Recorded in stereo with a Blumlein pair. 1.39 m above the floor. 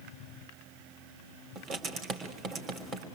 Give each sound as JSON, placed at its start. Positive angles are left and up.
{"t": 1.6, "sound": "writing", "azimuth_deg": -25, "distance_m": 3.5}